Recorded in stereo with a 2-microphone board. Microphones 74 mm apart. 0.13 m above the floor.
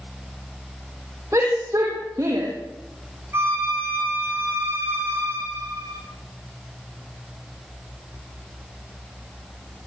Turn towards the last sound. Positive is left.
turn(degrees=-35)  # may be behind; listen again after turning